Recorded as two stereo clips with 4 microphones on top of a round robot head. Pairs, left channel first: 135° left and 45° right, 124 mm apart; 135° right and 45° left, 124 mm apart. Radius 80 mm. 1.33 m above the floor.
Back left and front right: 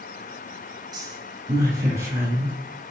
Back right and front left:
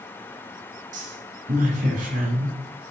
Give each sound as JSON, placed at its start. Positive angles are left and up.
{"t": 0.9, "sound": "a woman speaking", "azimuth_deg": 15, "distance_m": 6.0}